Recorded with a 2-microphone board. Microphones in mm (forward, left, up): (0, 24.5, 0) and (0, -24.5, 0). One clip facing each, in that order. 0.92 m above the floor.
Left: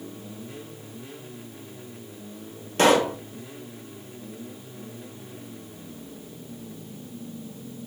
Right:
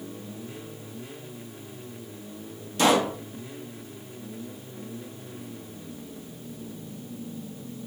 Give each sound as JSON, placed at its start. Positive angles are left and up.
{"t": 2.8, "sound": "a pop", "side_deg": 50, "distance_m": 1.1}